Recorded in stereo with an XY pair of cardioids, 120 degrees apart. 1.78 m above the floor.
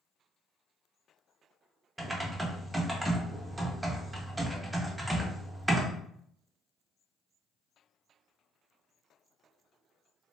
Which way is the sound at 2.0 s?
10° right.